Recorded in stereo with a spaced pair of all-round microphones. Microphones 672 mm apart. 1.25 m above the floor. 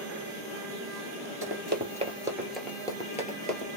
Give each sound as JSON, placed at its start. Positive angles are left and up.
{"t": 1.4, "sound": "running footsteps", "side_deg": -20, "distance_m": 1.2}